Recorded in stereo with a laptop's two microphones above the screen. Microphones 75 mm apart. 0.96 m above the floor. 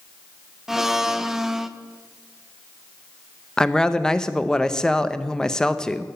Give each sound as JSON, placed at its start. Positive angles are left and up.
{"t": 0.7, "sound": "a blender", "side_deg": -5, "distance_m": 0.5}
{"t": 3.6, "sound": "a woman speaking", "side_deg": 10, "distance_m": 0.6}